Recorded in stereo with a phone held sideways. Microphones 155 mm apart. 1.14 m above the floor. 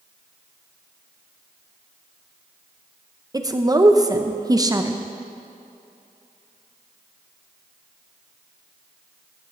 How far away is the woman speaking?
About 0.6 m.